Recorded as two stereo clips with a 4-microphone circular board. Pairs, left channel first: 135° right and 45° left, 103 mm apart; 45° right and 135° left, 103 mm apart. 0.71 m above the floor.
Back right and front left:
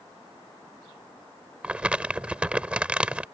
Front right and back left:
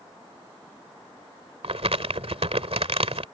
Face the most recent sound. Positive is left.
turn(degrees=125)